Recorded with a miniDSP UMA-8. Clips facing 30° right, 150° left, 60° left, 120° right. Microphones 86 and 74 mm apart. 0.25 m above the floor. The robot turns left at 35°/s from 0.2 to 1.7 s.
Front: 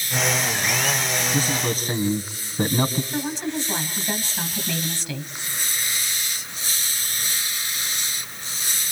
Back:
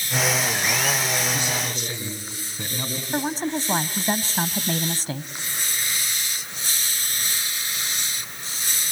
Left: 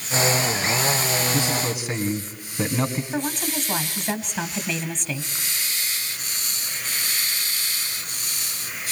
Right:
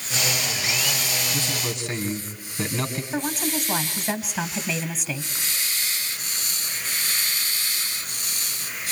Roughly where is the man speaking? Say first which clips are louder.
Front 4 dB, left 5 dB; ahead.